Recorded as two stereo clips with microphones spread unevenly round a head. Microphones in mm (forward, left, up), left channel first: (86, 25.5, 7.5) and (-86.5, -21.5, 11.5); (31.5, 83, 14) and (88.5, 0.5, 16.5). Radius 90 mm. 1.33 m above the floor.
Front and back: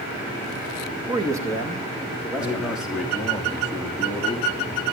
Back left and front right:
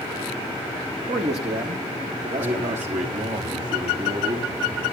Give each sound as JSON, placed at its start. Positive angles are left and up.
{"t": 1.1, "sound": "a man speaking", "azimuth_deg": -95, "distance_m": 1.9}
{"t": 2.4, "sound": "a man speaking", "azimuth_deg": -80, "distance_m": 2.0}